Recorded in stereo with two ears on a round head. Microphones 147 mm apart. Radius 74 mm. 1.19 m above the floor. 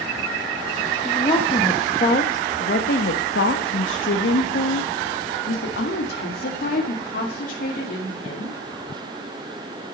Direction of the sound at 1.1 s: 25° left (ahead or behind).